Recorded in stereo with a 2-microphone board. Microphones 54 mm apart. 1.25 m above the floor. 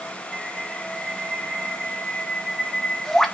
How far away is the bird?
About 1.4 m.